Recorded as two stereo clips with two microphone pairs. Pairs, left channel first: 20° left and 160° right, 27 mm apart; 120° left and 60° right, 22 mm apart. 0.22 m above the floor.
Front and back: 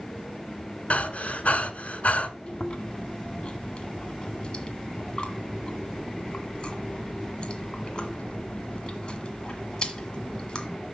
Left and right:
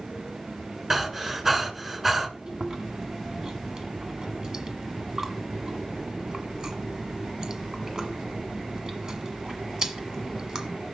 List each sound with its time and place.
0.9 s breathing: 10° left, 1.4 m
2.5 s chewing: 15° right, 1.5 m